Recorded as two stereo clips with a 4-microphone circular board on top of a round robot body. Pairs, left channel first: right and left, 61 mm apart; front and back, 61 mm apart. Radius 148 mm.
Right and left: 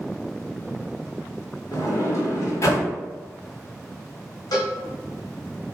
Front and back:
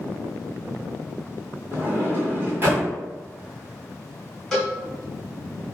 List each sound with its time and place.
1.7 s a sliding door: 130° right, 1.5 m
4.5 s a cowbell: 85° right, 1.2 m